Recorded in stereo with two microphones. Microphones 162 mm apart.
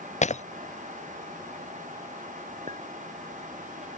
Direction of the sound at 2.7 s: 55° right (ahead or behind).